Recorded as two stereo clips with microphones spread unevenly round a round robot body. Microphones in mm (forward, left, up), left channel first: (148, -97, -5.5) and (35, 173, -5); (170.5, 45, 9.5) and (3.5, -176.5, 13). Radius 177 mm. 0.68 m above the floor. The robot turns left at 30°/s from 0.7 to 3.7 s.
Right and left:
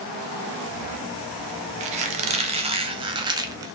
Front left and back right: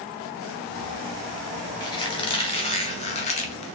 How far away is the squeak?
About 0.5 m.